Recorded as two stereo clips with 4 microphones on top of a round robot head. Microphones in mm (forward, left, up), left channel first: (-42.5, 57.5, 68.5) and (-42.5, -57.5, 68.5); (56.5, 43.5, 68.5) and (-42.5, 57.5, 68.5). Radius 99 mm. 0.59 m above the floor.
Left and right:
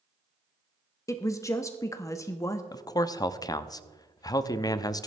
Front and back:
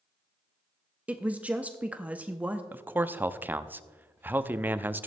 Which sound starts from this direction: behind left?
A man speaking, at 2.7 s.